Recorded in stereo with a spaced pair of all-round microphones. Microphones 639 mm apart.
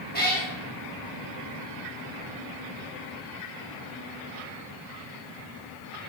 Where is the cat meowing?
15° left (ahead or behind), 2.5 m.